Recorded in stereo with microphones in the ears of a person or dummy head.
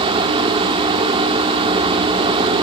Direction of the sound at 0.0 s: 30° right (ahead or behind).